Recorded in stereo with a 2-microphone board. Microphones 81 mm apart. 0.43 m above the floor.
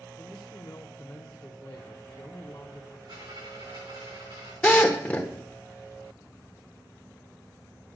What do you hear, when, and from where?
0.2 s a man speaking: 35° left (ahead or behind), 1.0 m
3.1 s a dropped coin: 65° right (ahead or behind), 7 m
4.6 s a drill: 20° left (ahead or behind), 1.4 m